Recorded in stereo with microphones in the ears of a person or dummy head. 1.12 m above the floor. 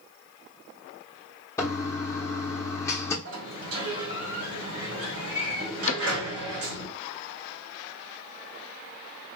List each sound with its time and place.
1.6 s a toilet flushing: 15° left (ahead or behind), 0.7 m
3.2 s a sliding door: 70° right (ahead or behind), 2.0 m
5.9 s a cupboard door: 40° left (ahead or behind), 0.5 m